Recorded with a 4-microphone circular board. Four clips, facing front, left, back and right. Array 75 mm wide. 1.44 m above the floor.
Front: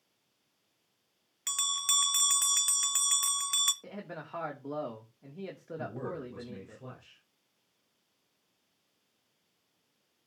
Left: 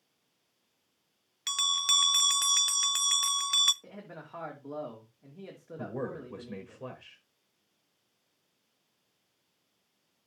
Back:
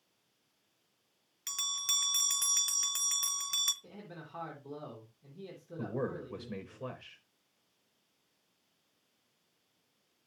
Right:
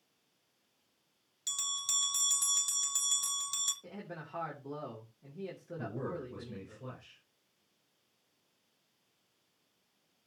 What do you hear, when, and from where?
1.5 s a bell: 75° left, 0.7 m
3.8 s a man speaking: 10° left, 3 m
5.8 s a man speaking: 125° left, 6.5 m